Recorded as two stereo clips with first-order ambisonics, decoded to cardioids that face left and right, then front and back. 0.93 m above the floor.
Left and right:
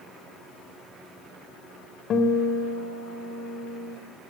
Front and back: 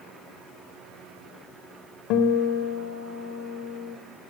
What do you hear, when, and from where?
2.1 s a guitar: 35° left, 3.5 m